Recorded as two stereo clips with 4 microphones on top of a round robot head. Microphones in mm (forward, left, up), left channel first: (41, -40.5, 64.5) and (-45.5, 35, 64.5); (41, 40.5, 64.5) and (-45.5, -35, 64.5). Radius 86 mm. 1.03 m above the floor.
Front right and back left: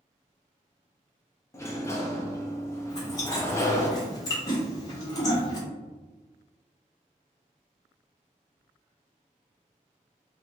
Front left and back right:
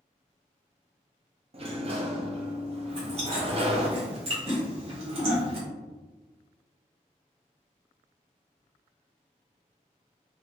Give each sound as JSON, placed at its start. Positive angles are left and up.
{"t": 1.5, "sound": "a sliding door", "azimuth_deg": -105, "distance_m": 0.7}
{"t": 2.9, "sound": "chewing", "azimuth_deg": -100, "distance_m": 1.4}